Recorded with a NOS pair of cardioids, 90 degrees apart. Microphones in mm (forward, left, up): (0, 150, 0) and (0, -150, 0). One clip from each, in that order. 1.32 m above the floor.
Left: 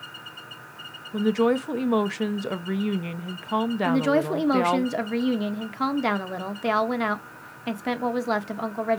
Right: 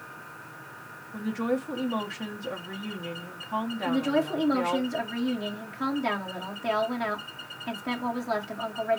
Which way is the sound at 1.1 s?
40° left.